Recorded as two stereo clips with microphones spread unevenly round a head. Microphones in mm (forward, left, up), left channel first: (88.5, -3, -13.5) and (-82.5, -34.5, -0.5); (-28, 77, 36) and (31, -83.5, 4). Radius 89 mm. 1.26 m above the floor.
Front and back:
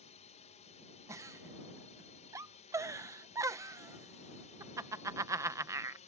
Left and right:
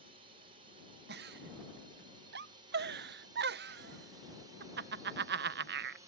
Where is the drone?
30° right; by 6.1 s 20° right.